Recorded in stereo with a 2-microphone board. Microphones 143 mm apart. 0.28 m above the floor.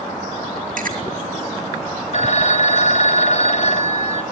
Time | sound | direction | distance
0.8 | chewing | 70° right (ahead or behind) | 4.5 m
2.1 | a phone ringing | 55° left (ahead or behind) | 1.3 m